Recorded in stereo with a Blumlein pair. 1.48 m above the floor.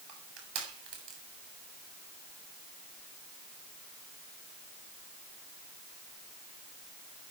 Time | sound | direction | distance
0.1 | crushing | 30° right | 7.5 m